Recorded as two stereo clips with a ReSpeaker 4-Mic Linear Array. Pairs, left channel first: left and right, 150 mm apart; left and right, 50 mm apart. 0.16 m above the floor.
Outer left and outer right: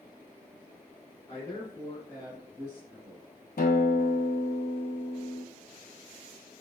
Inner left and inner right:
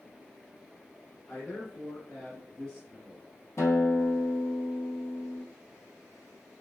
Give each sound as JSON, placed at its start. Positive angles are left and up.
{"t": 1.3, "sound": "a man speaking", "side_deg": 45, "distance_m": 1.9}
{"t": 3.6, "sound": "a guitar", "side_deg": 85, "distance_m": 0.8}